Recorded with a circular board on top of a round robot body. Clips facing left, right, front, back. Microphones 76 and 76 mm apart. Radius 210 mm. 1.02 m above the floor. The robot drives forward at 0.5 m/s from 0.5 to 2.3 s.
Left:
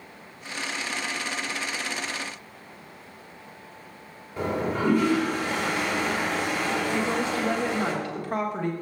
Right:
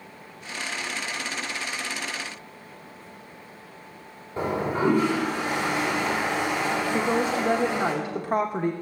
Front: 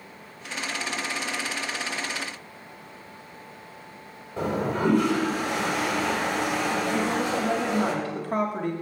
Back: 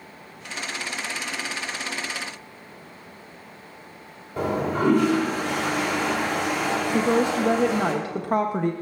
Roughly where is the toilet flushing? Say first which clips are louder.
Right 1 dB, back 2 dB; behind.